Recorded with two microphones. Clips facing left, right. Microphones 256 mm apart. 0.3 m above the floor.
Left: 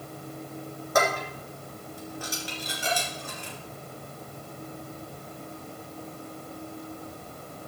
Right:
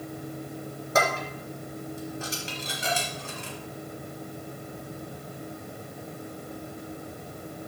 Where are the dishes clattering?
25° right (ahead or behind), 3 m.